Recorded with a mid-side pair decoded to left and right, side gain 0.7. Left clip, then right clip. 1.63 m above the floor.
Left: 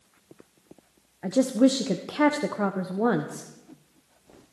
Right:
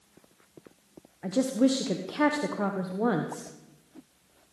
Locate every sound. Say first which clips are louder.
1.2 s a woman speaking: left 4 dB; 15° left, 1.1 m